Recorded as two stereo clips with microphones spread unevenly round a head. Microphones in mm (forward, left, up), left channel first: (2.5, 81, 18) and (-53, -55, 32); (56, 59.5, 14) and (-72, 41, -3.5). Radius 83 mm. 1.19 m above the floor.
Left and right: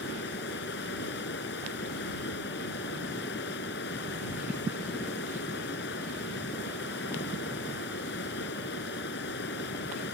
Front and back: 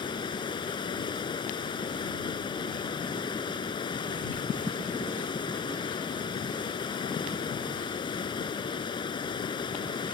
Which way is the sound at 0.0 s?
60° left.